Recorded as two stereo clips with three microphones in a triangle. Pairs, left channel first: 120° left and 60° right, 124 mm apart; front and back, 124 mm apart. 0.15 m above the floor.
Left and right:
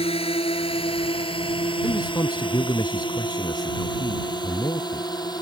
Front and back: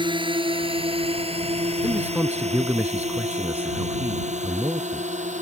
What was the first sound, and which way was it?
A drone, 140° left.